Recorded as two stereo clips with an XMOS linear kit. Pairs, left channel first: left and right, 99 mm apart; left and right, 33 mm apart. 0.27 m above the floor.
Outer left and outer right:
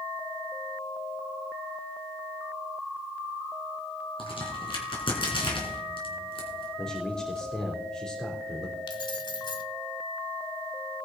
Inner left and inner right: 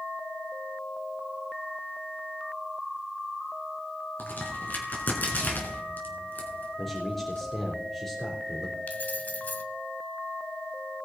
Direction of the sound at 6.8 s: 10° left (ahead or behind).